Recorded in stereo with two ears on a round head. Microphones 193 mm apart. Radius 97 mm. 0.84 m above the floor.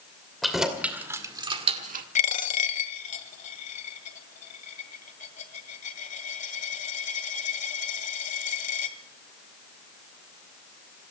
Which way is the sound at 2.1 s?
35° left (ahead or behind).